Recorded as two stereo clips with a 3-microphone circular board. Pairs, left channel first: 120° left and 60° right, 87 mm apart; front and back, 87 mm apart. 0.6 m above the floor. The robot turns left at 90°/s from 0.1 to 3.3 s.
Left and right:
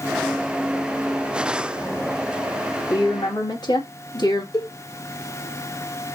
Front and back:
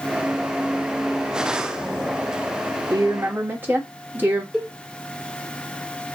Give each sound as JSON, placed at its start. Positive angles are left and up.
{"t": 2.9, "sound": "a woman speaking", "azimuth_deg": 155, "distance_m": 1.9}
{"t": 4.5, "sound": "a cowbell", "azimuth_deg": 95, "distance_m": 1.6}